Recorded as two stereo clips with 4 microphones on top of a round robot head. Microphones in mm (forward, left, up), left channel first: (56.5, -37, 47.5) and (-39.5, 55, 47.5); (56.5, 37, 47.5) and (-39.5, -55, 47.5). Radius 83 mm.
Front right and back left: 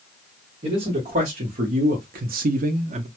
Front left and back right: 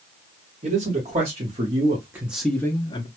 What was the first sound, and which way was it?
A man speaking, straight behind.